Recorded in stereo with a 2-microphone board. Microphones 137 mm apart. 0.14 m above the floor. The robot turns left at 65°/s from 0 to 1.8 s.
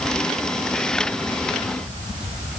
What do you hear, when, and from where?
Only background noise.